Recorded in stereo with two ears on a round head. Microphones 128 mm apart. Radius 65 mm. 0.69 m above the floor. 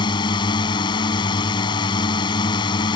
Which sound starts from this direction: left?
A drone, at 0.0 s.